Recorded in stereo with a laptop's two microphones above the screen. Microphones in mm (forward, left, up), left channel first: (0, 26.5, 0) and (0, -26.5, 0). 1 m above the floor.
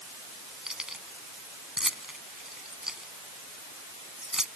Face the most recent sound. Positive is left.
turn(degrees=-10)  # may be behind; listen again after turning